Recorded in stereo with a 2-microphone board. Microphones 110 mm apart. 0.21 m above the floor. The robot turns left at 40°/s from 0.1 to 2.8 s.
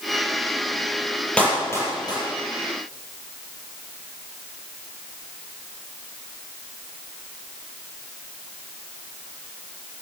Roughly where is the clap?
Centre.